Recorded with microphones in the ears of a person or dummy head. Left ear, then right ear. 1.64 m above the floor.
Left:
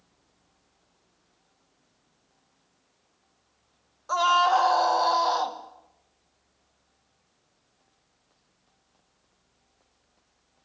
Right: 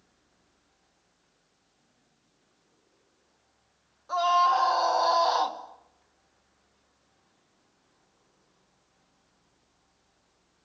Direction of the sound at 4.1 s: 35° left (ahead or behind).